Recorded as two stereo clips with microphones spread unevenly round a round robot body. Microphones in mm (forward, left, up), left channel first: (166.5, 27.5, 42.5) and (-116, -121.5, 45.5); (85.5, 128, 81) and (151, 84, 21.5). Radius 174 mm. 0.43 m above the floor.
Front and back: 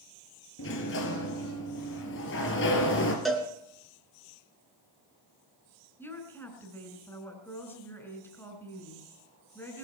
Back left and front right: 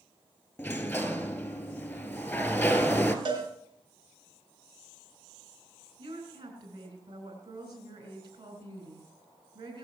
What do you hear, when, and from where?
0.6 s a sliding door: 85° left, 1.9 m
3.2 s a cowbell: 60° right, 3 m
6.0 s a woman speaking: 55° right, 4.5 m